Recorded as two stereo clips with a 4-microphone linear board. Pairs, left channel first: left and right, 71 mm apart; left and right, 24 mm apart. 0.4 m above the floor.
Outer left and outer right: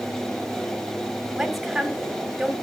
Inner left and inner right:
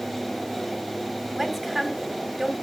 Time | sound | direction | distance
1.4 | a woman speaking | centre (ahead or behind) | 2.5 m